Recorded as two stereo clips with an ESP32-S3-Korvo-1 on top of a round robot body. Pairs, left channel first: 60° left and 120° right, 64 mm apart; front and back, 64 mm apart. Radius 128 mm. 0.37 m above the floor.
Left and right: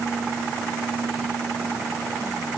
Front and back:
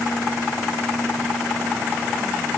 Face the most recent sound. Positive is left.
No sound to turn to.